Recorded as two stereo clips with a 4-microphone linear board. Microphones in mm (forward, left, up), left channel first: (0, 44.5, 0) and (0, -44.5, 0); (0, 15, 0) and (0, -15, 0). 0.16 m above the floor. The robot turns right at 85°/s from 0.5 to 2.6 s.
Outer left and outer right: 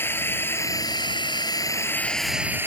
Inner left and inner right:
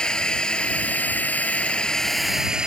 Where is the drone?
30° left; by 2.7 s 150° right.